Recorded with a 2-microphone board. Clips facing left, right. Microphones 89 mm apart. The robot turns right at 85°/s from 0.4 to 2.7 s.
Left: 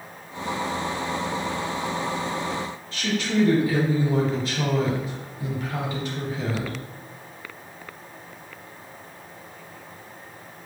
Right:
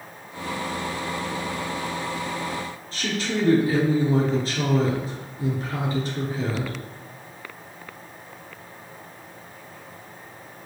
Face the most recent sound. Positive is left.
turn(degrees=-35)  # may be behind; listen again after turning